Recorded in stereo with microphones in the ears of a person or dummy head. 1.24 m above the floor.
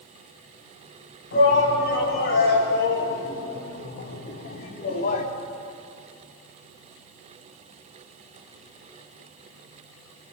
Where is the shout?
65° left (ahead or behind), 7.5 m; by 5.3 s 40° left (ahead or behind), 2.5 m.